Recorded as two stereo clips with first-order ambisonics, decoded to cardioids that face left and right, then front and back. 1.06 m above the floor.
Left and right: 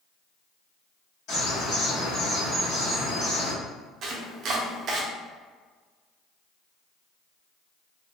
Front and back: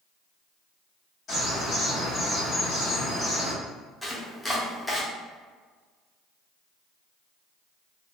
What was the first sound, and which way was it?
A bird, 65° left.